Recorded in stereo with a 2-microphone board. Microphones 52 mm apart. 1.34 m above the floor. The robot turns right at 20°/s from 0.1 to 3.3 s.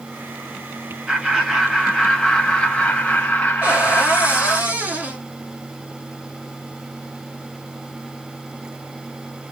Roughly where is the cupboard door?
Right.